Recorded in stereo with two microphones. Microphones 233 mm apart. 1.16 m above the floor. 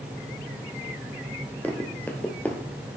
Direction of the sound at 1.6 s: 5° left (ahead or behind).